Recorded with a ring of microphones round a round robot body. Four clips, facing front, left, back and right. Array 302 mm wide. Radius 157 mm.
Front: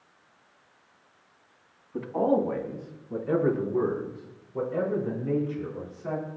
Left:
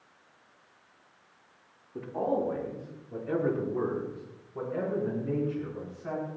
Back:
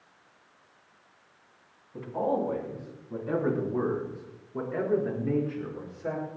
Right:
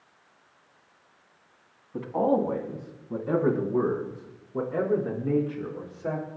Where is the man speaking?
65° right, 4 m; by 6.3 s 115° right, 8 m.